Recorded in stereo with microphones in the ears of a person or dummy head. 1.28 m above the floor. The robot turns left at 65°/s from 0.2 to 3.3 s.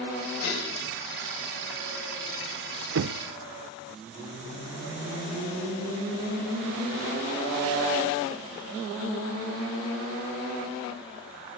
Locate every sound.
0.4 s dishes clattering: 75° left (ahead or behind), 5 m; by 0.7 s 60° left (ahead or behind), 5 m
3.0 s knocking: 70° right (ahead or behind), 0.5 m; by 3.2 s 55° right (ahead or behind), 0.5 m